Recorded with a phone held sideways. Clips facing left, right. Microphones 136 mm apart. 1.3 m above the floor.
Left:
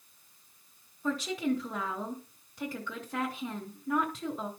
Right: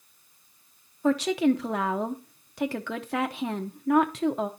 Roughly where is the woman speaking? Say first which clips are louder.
Right 8 dB; right.